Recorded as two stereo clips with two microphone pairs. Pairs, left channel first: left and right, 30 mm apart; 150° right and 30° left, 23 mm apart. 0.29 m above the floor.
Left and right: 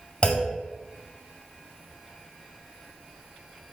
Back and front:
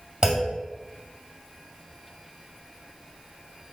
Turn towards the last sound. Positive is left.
turn(degrees=65)